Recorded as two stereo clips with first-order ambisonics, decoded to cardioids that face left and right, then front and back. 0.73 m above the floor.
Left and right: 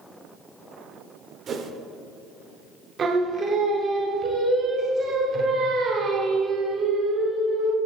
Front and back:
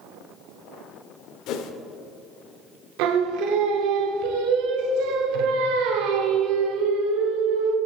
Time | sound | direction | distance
1.5 | a whoosh | 30° right | 0.5 m
3.0 | singing | 155° right | 0.8 m